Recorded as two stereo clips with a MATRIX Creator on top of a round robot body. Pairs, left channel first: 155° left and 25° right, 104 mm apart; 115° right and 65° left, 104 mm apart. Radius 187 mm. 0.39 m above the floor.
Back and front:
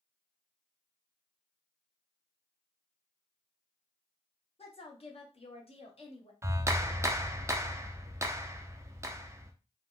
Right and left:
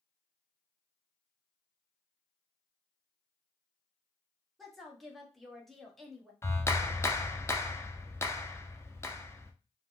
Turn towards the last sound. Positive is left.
turn(degrees=-65)